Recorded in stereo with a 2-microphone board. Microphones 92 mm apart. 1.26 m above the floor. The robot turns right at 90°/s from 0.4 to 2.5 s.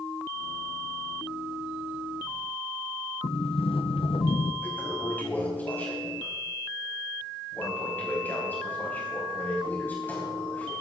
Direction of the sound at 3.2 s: 80° left.